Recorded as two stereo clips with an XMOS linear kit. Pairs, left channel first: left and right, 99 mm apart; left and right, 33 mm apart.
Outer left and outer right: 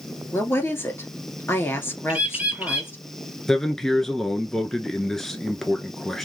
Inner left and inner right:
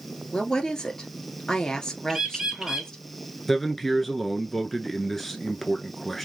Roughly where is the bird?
Centre.